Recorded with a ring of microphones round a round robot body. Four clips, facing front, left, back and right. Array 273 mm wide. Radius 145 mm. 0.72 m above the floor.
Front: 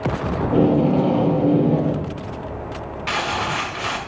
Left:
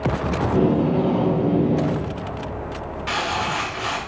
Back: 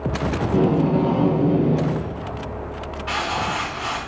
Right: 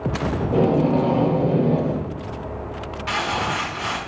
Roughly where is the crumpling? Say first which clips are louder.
Even, front 1 dB; ahead.